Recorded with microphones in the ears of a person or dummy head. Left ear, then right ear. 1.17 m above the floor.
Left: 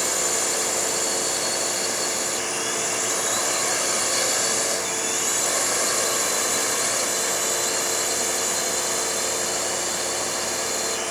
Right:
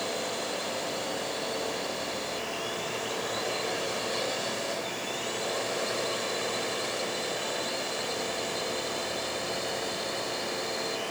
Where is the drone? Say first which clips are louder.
Left 7 dB; 60° left (ahead or behind); by 11.1 s 50° left (ahead or behind).